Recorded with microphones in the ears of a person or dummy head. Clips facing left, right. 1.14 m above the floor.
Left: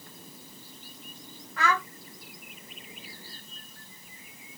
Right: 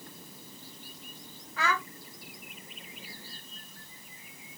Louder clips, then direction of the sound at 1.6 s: Left 3 dB; 45° left (ahead or behind).